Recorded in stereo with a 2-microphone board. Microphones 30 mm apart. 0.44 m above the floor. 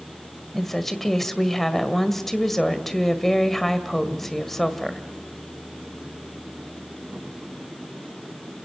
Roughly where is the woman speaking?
Centre.